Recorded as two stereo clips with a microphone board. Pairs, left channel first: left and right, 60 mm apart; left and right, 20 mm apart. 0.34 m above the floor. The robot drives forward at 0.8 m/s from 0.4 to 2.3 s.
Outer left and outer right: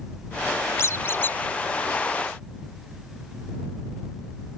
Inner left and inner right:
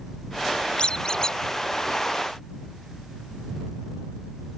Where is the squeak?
55° left (ahead or behind); by 1.4 s 35° left (ahead or behind).